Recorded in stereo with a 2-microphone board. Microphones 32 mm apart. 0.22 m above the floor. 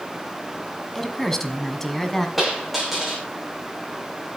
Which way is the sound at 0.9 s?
10° left (ahead or behind).